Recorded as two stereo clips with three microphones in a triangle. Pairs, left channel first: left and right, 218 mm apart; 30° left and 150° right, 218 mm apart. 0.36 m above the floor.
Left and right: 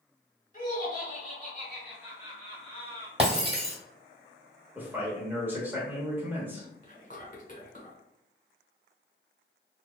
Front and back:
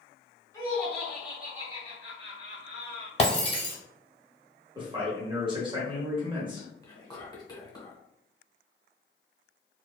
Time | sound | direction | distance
0.5 | laughter | 85° left | 1.3 m
3.2 | breaking glass | 30° right | 0.9 m
4.8 | a man speaking | 160° right | 0.9 m
6.8 | whispering | 90° left | 1.0 m